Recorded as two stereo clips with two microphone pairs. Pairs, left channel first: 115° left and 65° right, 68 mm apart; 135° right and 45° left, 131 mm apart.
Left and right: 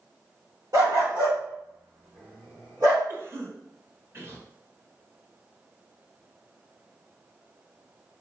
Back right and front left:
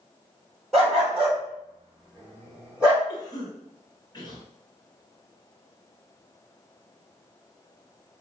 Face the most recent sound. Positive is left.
turn(degrees=-90)